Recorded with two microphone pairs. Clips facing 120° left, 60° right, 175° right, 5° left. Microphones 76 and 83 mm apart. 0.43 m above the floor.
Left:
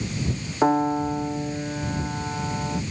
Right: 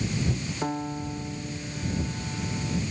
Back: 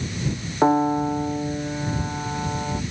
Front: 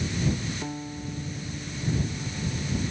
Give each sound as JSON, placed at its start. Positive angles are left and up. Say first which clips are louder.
{"t": 0.6, "sound": "a piano", "louder": "left 13 dB, back 17 dB", "azimuth_deg": 165}